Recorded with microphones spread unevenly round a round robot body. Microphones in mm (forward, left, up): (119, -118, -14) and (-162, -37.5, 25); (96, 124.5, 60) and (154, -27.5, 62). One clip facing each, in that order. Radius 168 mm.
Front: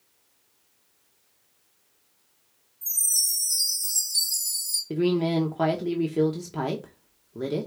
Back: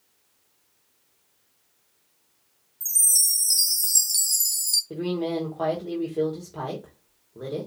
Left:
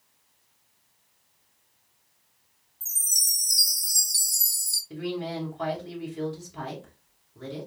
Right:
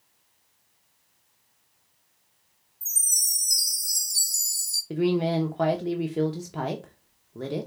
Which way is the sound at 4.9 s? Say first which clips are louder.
Front 4 dB, right 8 dB; 55° right.